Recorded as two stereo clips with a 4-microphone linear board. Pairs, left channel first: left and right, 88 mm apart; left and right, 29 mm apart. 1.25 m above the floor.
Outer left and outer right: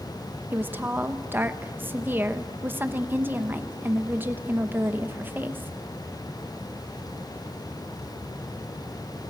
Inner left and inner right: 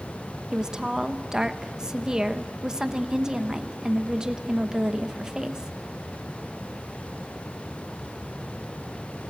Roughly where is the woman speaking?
Right.